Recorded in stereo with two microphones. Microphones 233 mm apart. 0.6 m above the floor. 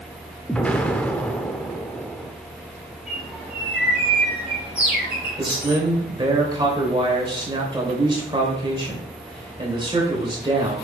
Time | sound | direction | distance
0.5 | an explosion | 5° left (ahead or behind) | 0.7 m
3.1 | a bird | 5° right (ahead or behind) | 4 m
5.4 | a man speaking | 20° right (ahead or behind) | 2.5 m